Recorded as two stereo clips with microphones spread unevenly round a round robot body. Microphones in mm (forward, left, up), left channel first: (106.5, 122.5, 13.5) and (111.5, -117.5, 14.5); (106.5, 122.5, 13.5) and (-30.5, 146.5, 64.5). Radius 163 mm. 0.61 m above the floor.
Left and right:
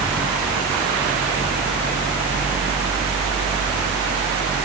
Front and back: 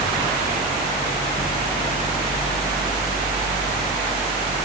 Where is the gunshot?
No gunshot in this recording.